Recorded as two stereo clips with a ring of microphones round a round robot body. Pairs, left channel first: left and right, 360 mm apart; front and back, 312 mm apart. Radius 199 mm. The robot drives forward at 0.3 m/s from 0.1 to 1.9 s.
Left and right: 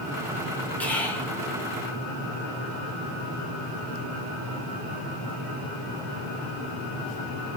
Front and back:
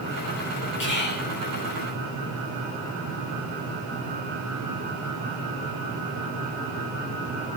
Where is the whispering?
5° left, 0.9 m; by 1.3 s 10° left, 0.9 m.